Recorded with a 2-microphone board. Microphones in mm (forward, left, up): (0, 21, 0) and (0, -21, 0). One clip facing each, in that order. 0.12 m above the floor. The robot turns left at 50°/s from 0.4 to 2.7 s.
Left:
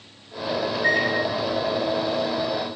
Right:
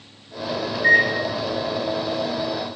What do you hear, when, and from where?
0.7 s a microwave: 5° right (ahead or behind), 1.1 m; by 1.1 s 5° left (ahead or behind), 1.1 m